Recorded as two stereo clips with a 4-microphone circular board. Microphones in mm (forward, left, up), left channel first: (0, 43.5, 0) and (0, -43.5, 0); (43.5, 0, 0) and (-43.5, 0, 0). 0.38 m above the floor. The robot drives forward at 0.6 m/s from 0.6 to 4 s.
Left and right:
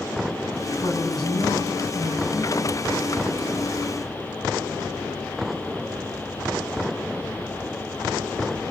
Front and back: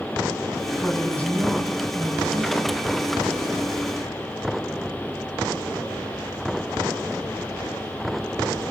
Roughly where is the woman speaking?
Left.